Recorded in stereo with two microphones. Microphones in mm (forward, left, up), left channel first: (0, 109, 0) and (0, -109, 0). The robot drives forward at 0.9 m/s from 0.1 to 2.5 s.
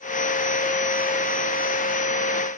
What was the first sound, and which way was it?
Only background noise.